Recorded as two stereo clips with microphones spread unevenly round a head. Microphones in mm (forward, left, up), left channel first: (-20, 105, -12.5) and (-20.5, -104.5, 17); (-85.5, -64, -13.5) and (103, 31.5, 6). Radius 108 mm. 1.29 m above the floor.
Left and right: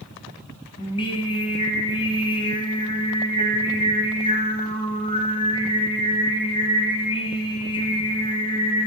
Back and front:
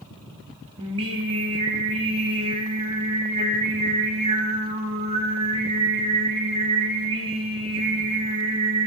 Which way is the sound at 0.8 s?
30° left.